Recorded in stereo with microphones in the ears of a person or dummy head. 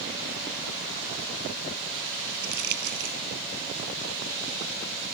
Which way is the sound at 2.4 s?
60° right (ahead or behind).